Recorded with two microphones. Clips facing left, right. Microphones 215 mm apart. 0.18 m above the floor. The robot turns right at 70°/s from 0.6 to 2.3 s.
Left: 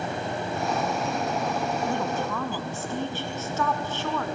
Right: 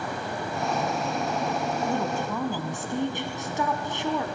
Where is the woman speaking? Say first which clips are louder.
Even; 5° right (ahead or behind), 1.0 m; by 4.2 s 15° right (ahead or behind), 1.0 m.